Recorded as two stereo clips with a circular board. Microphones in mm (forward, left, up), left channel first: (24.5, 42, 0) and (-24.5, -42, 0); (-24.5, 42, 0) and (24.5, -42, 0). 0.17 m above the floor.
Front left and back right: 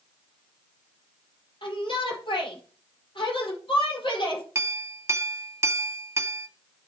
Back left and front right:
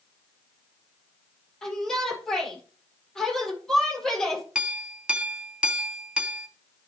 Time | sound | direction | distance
1.6 | a shout | 35° left | 4.5 m
4.5 | a clink | 130° right | 0.8 m